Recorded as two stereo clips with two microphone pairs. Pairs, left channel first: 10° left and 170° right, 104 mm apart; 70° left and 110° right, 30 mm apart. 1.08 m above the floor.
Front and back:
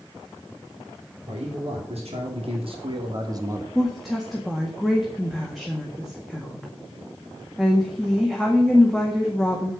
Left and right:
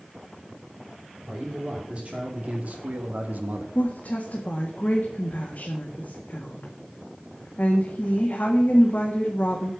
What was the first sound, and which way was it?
A man speaking, 165° right.